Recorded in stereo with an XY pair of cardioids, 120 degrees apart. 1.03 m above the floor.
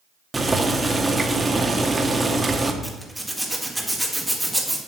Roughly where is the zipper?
Ahead.